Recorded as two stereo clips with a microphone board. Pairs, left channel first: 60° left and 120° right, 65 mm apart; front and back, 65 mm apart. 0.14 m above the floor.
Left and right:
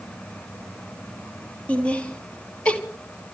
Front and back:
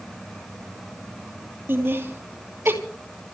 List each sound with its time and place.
1.7 s laughter: 130° left, 3 m